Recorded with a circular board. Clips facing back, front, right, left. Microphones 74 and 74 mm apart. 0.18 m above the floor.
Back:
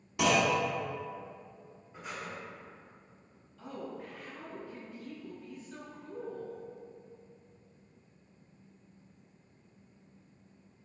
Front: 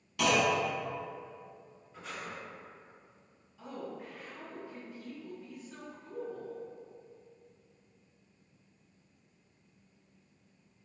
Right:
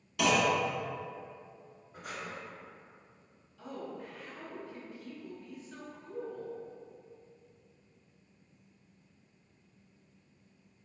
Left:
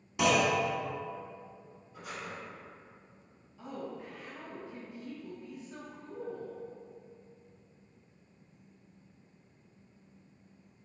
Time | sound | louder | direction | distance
0.2 | a clunk | back 1 dB, left 1 dB | 135° left | 0.7 m
1.9 | breathing | back 1 dB, even | 110° right | 0.9 m
3.6 | a woman speaking | even, left 1 dB | 70° left | 1.6 m